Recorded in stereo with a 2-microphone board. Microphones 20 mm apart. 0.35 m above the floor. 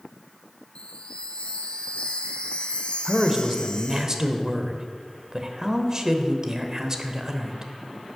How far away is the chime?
About 1.0 m.